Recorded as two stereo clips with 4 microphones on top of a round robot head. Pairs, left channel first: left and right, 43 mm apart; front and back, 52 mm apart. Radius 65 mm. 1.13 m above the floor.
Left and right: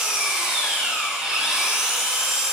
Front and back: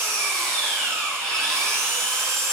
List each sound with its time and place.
0.0 s an engine running: 165° right, 6.5 m